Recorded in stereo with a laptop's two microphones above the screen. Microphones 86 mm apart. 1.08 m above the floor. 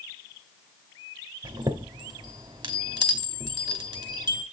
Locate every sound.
1.4 s a chime: 55° right (ahead or behind), 0.9 m